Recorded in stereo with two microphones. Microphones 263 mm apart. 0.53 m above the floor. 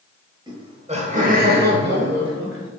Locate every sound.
0.5 s laughter: 15° right (ahead or behind), 2 m; by 2.7 s 55° right (ahead or behind), 2.5 m